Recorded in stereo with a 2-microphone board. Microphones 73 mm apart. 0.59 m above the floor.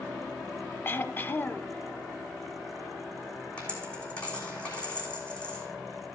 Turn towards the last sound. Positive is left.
turn(degrees=15)  # may be behind; listen again after turning